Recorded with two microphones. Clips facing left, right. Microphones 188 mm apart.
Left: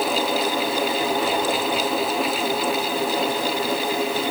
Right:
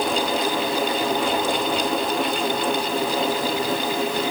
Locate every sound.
Only background noise.